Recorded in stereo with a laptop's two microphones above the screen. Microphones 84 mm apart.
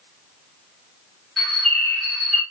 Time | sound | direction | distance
1.4 | a bird | 5° right (ahead or behind) | 3.5 m